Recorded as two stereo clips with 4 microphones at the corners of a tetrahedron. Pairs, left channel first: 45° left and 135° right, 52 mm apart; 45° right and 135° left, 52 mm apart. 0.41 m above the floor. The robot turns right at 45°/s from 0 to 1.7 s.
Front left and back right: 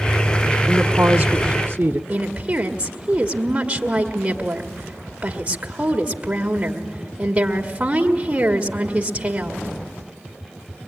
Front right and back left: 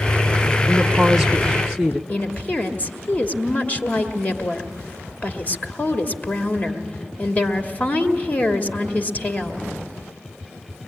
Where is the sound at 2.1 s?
80° right, 1.6 m.